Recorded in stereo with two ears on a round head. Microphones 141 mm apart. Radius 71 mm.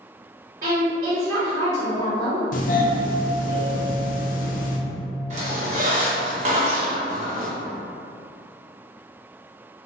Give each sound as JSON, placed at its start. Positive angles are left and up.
{"t": 0.6, "sound": "a woman speaking", "side_deg": -55, "distance_m": 1.6}
{"t": 2.5, "sound": "a doorbell", "side_deg": 55, "distance_m": 0.6}
{"t": 5.3, "sound": "a squeak", "side_deg": -45, "distance_m": 0.8}